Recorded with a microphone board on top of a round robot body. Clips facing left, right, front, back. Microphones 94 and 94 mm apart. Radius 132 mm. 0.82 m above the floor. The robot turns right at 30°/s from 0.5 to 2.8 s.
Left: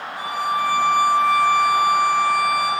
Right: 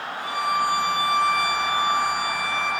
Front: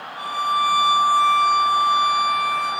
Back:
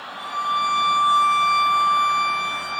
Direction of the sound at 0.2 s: 70° left.